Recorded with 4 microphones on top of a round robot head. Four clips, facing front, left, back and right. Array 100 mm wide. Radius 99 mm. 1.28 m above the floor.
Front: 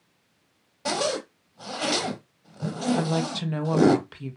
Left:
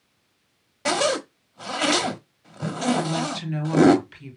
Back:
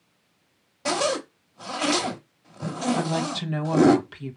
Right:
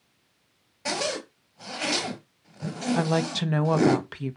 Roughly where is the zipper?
Left.